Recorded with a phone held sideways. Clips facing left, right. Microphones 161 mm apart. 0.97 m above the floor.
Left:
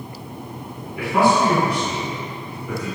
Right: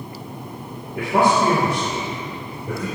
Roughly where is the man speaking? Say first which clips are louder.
Even; right.